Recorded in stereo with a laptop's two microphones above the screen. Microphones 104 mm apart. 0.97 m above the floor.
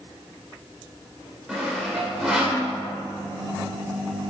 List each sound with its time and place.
1.5 s sawing: 5° right (ahead or behind), 1.9 m